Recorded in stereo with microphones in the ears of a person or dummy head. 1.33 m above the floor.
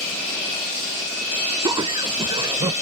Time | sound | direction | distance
1.6 | laughter | 25° right (ahead or behind) | ?